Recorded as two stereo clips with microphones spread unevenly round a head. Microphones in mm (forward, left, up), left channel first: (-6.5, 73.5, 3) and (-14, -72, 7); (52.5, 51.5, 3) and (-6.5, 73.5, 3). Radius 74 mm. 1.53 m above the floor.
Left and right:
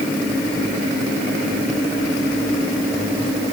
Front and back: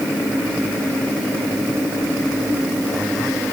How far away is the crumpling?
No crumpling in this recording.